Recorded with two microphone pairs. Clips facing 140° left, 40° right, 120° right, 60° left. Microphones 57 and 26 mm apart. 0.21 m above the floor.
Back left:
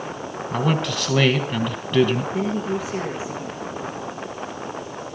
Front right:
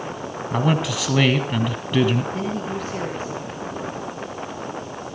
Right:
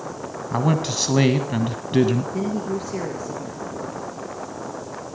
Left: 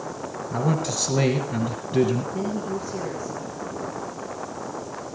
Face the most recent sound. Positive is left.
turn(degrees=-145)